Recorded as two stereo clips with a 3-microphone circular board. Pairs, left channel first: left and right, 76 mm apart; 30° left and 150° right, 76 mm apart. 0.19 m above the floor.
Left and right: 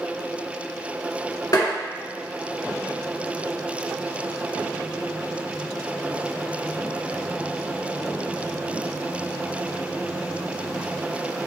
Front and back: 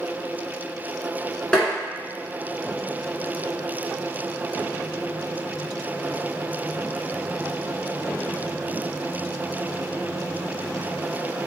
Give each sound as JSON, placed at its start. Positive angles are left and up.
{"t": 1.5, "sound": "tapping", "azimuth_deg": 110, "distance_m": 1.1}